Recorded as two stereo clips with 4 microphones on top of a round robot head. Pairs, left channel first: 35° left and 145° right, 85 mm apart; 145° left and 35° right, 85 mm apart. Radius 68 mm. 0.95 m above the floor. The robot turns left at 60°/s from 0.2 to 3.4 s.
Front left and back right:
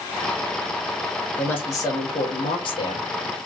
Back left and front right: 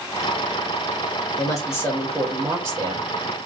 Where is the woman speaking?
105° left, 2 m; by 3.1 s 5° left, 2 m.